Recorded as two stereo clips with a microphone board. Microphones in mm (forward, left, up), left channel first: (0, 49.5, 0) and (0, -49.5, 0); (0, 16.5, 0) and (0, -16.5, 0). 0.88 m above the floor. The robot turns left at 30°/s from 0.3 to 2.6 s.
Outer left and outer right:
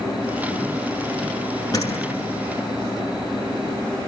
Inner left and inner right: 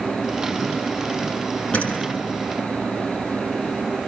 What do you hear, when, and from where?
1.7 s a door slam: 35° left (ahead or behind), 6.5 m; by 2.2 s 20° left (ahead or behind), 6.5 m